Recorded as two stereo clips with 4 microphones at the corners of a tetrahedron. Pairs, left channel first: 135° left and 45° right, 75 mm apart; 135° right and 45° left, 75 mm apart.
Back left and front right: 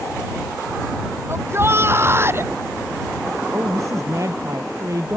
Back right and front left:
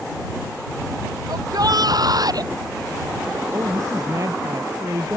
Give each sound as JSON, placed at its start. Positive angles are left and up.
{"t": 1.3, "sound": "a shout", "azimuth_deg": 10}
{"t": 3.5, "sound": "a woman speaking", "azimuth_deg": 0}